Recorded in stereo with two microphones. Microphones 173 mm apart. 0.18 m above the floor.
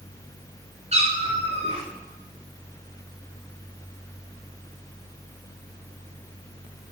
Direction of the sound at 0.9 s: 40° right (ahead or behind).